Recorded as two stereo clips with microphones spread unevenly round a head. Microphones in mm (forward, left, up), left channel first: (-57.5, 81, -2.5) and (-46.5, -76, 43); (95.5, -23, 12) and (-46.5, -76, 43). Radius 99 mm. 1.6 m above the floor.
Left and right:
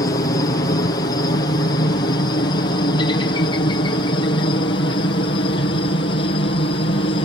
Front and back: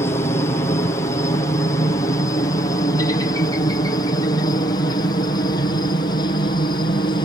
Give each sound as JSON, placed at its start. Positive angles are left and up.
{"t": 0.0, "sound": "a helicopter", "azimuth_deg": 70}